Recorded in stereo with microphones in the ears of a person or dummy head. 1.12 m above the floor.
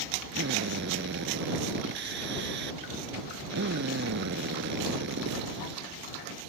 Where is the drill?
70° right (ahead or behind).